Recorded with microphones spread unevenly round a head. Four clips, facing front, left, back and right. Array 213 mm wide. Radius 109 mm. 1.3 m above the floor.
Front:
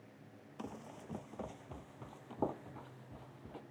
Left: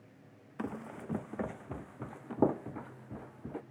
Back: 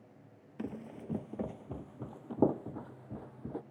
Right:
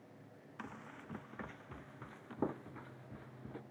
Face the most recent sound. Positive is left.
turn(degrees=145)